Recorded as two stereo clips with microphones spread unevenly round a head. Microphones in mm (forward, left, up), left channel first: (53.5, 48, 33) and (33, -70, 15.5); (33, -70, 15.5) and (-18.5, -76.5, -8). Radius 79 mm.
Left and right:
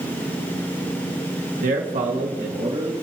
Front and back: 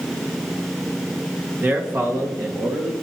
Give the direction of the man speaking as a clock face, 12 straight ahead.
4 o'clock.